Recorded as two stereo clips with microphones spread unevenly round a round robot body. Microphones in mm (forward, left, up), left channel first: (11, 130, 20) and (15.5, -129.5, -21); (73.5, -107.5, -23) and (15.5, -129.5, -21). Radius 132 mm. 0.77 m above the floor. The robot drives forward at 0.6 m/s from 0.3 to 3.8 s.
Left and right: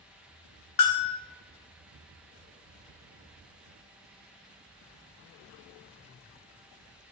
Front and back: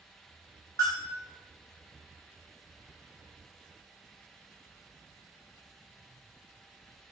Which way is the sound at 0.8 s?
85° left.